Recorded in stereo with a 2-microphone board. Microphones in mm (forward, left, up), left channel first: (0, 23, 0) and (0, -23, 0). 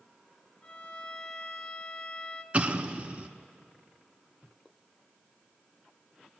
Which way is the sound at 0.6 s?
25° left (ahead or behind).